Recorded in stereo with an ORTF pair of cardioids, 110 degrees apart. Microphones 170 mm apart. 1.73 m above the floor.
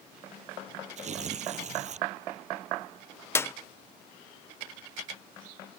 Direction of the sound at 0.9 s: 45° right.